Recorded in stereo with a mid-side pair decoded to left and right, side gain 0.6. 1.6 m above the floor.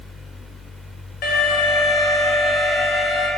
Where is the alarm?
60° left, 1.5 m.